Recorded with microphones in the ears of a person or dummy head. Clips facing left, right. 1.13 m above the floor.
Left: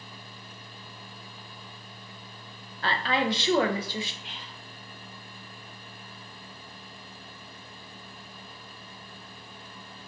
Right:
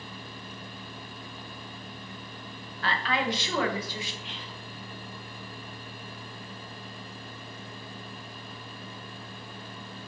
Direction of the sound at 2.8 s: 25° left (ahead or behind).